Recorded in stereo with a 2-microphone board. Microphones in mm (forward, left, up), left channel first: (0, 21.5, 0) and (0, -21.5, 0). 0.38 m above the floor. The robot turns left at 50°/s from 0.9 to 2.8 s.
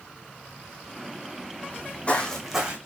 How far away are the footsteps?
About 0.8 m.